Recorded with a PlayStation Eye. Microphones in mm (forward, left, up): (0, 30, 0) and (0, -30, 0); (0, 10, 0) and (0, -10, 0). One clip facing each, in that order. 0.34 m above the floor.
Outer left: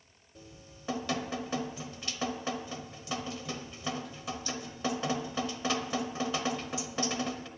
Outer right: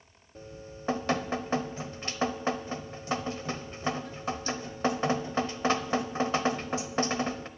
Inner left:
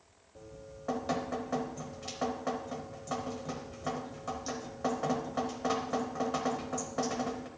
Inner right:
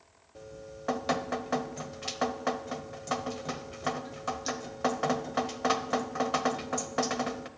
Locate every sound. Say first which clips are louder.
0.3 s dripping: outer right 8 dB, inner right 4 dB; 40° right (ahead or behind), 0.7 m